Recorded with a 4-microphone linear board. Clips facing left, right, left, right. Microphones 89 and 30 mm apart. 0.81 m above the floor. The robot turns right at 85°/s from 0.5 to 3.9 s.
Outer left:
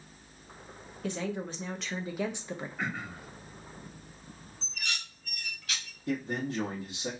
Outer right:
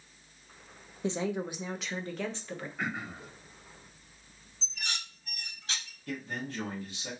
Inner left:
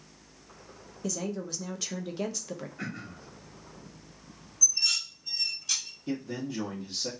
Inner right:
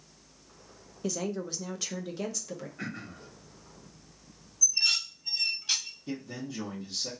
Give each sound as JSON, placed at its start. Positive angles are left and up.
{"t": 1.0, "sound": "a woman speaking", "side_deg": -25, "distance_m": 0.5}
{"t": 2.8, "sound": "throat clearing", "azimuth_deg": -175, "distance_m": 0.8}
{"t": 4.6, "sound": "dishes clattering", "side_deg": -30, "distance_m": 0.6}
{"t": 6.1, "sound": "a man speaking", "side_deg": 25, "distance_m": 1.1}